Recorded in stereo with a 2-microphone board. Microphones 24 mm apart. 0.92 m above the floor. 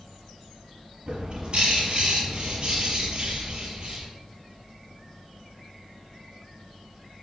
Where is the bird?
40° right (ahead or behind), 5.5 m.